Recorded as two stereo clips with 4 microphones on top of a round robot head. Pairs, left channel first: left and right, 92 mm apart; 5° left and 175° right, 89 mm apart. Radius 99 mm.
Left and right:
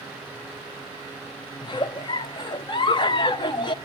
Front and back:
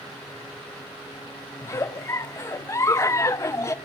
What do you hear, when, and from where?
1.6 s a giggle: 60° left, 0.6 m